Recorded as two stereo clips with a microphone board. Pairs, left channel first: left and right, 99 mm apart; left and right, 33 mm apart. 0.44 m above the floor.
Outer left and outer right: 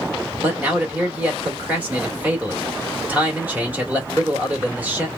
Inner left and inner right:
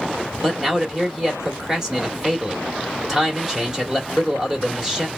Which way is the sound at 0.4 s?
15° right (ahead or behind).